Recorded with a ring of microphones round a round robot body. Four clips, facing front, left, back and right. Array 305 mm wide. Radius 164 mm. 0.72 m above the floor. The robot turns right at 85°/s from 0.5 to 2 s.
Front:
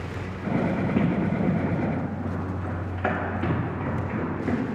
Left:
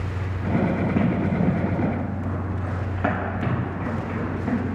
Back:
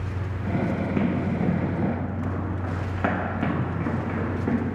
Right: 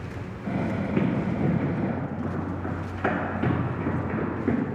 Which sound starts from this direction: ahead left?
Running footsteps, at 1.0 s.